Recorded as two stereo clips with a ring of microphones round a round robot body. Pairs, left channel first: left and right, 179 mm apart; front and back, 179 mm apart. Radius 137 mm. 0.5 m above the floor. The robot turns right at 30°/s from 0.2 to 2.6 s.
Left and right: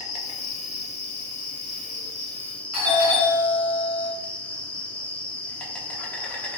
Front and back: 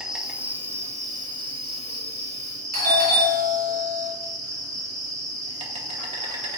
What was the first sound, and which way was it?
An insect, 95° left.